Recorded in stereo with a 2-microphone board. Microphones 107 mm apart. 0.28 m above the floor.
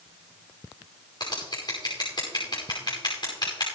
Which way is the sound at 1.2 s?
45° left (ahead or behind).